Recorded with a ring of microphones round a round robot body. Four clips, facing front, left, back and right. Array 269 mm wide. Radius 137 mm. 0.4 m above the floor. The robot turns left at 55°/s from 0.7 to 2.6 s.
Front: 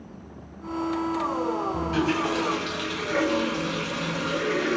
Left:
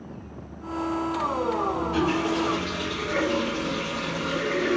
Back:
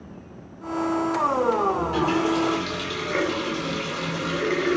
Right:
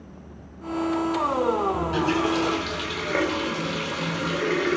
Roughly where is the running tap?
Ahead right.